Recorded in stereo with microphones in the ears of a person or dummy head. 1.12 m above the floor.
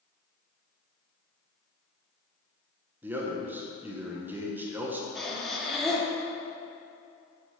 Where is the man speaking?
15° right (ahead or behind), 0.8 m.